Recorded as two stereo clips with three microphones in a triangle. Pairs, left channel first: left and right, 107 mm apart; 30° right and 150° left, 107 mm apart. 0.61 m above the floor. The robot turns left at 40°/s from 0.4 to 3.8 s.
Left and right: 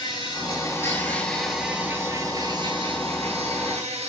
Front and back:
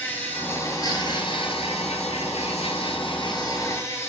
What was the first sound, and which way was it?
An insect, 45° left.